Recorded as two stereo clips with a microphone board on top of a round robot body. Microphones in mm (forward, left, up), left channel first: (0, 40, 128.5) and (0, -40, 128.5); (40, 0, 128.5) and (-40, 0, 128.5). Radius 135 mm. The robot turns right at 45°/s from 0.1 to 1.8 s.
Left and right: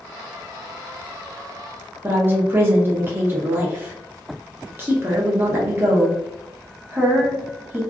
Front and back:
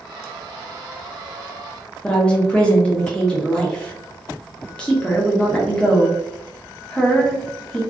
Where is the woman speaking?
65° right, 0.9 m.